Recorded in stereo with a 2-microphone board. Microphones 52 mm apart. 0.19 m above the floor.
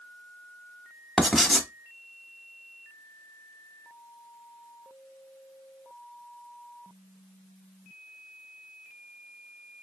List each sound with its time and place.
1.2 s writing: centre (ahead or behind), 1.0 m